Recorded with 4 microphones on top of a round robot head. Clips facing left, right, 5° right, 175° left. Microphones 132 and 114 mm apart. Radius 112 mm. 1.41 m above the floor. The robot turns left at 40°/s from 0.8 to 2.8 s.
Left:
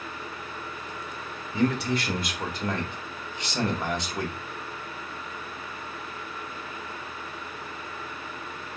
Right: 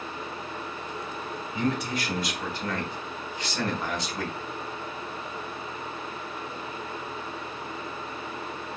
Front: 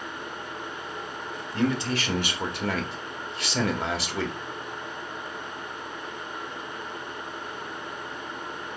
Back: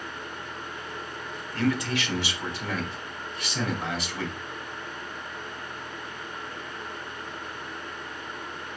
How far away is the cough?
No cough in this recording.